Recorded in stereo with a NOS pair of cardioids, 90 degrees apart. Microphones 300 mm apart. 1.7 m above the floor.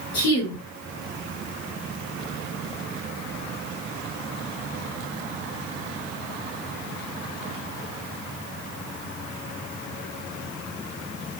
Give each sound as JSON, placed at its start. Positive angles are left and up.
{"t": 0.1, "sound": "a woman speaking", "azimuth_deg": 65, "distance_m": 3.0}